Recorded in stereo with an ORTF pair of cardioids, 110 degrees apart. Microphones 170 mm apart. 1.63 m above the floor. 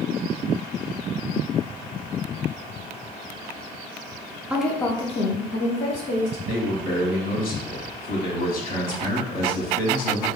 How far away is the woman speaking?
About 0.6 m.